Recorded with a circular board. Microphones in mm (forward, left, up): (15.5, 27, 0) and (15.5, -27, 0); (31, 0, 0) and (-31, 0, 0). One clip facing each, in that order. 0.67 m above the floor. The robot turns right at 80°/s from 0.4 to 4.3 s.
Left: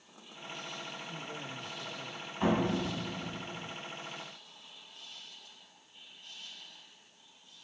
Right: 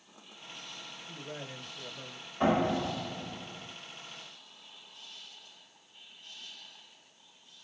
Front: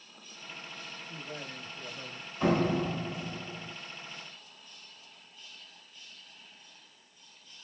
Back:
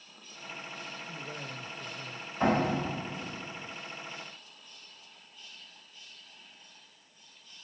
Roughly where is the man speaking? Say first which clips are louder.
Left 1 dB, back 1 dB; right.